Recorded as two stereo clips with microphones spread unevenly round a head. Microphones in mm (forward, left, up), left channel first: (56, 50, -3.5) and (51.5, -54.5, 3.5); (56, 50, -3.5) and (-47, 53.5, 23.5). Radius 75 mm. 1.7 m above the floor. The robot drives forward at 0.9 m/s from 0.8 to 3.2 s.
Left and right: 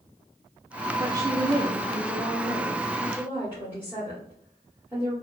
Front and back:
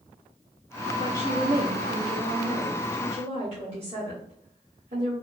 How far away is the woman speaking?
About 0.7 m.